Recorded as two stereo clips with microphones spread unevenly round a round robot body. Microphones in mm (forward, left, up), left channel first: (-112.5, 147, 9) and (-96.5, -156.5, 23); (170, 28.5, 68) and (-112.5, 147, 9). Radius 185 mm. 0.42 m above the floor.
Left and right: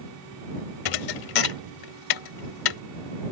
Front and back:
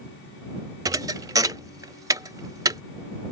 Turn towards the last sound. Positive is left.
turn(degrees=80)